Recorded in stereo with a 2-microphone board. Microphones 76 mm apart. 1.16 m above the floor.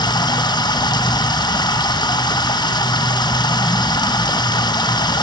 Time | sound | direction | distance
0.0 | running water | 70° left (ahead or behind) | 0.8 m